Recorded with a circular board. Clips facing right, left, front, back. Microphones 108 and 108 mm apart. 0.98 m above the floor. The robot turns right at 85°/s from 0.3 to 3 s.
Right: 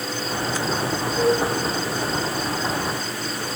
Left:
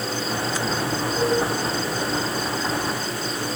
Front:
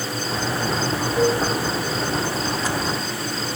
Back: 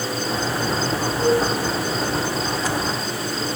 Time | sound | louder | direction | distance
1.2 | dishes clattering | right 2 dB, back 1 dB | 10° left | 5.5 m